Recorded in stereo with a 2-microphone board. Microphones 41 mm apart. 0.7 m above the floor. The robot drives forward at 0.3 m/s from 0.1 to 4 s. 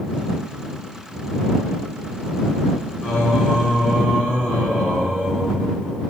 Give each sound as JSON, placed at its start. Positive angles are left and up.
{"t": 3.0, "sound": "singing", "side_deg": -10, "distance_m": 2.5}